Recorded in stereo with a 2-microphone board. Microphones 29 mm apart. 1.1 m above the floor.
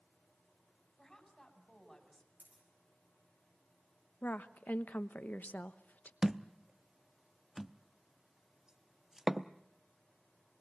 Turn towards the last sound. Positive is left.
turn(degrees=-15)  # may be behind; listen again after turning